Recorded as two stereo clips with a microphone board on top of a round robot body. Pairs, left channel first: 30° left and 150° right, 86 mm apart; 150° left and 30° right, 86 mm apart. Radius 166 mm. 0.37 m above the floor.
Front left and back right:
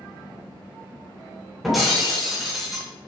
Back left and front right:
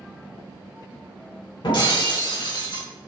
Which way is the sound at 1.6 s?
125° left.